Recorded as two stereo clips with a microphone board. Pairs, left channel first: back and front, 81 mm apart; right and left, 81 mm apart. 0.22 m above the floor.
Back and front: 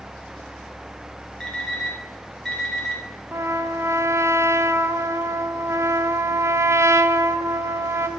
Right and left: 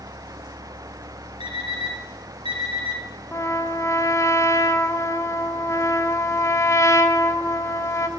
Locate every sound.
1.4 s an alarm clock: 95° left, 3 m
3.3 s a trumpet: 50° right, 0.8 m